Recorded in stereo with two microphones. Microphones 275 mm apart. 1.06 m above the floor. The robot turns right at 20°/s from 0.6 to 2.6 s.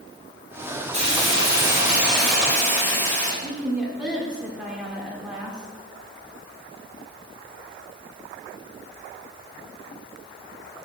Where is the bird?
I don't hear a bird.